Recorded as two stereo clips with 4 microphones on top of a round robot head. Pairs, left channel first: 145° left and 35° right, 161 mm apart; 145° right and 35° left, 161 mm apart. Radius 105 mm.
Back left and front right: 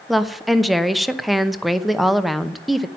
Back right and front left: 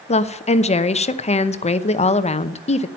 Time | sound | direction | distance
0.1 | a woman speaking | 125° right | 0.9 m